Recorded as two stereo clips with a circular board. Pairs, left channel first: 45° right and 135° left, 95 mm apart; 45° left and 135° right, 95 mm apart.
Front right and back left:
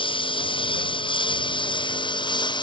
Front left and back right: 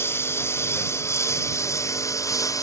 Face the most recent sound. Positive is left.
turn(degrees=-10)